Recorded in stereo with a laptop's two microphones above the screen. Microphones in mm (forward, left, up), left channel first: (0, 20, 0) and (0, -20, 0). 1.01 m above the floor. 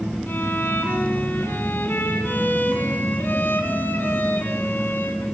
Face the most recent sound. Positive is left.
turn(degrees=55)  # may be behind; listen again after turning